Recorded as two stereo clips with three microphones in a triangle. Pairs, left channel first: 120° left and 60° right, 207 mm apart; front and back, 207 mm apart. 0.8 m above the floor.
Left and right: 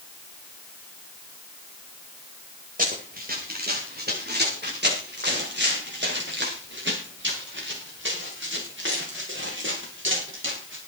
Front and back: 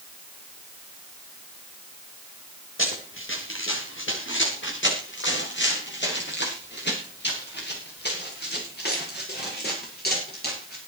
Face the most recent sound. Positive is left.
turn(degrees=-40)